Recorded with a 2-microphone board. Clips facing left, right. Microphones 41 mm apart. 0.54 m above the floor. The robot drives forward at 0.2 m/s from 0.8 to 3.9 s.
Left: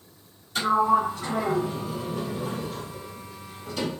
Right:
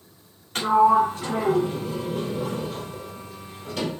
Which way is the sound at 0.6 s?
50° right (ahead or behind).